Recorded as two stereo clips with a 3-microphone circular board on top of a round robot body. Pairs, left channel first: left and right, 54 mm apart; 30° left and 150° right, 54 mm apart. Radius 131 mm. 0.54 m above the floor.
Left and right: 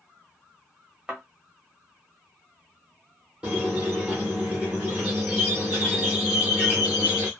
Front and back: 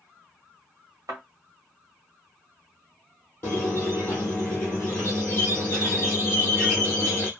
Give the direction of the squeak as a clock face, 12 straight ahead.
1 o'clock.